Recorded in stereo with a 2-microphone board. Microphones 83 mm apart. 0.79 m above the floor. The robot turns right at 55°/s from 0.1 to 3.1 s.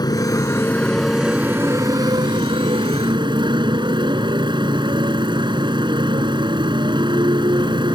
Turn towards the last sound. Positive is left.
turn(degrees=-70)